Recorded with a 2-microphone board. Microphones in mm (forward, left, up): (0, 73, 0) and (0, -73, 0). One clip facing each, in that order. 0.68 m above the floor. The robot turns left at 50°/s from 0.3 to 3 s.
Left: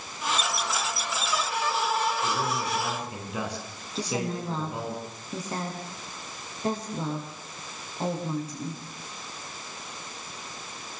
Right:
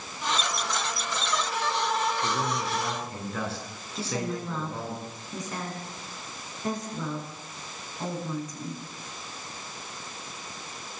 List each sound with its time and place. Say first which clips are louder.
2.2 s a man speaking: even; 155° right, 8.5 m; by 5.0 s 165° left, 8.5 m
4.0 s a woman speaking: left 1 dB; 30° left (ahead or behind), 6.5 m